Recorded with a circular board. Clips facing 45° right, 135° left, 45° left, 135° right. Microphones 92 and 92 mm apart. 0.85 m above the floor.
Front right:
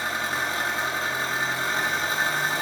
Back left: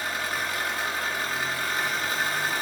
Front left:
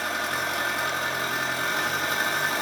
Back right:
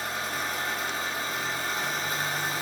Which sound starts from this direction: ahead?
An engine running, at 0.0 s.